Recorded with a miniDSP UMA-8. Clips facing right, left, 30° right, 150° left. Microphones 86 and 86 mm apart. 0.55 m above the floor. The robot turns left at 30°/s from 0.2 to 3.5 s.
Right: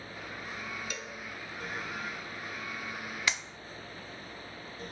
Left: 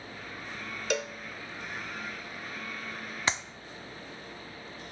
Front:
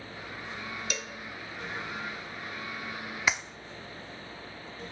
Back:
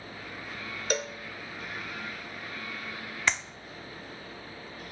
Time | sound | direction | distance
0.9 | a cowbell | 105° left | 0.7 m
3.3 | a clap | 50° left | 0.6 m